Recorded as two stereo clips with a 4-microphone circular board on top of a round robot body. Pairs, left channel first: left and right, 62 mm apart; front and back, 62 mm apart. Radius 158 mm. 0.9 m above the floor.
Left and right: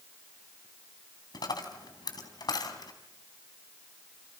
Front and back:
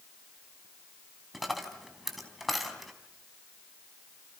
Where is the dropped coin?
90° left, 3.5 m.